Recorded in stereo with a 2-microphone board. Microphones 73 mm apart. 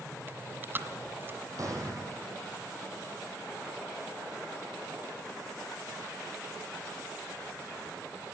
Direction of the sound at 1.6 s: 50° right (ahead or behind).